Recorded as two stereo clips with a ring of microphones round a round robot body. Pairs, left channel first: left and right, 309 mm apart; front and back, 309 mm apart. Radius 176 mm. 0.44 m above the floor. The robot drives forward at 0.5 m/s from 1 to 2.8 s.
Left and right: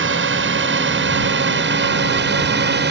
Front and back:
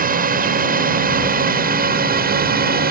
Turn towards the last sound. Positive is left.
turn(degrees=-130)